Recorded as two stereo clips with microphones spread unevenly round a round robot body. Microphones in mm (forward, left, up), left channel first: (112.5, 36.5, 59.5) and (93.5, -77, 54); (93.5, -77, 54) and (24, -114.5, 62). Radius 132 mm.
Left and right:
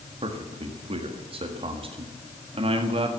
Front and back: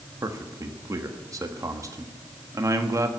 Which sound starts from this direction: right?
A man speaking, at 0.2 s.